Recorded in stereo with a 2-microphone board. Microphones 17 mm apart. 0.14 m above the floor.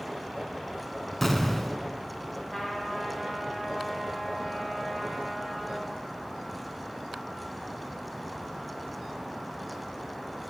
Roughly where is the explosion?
Centre.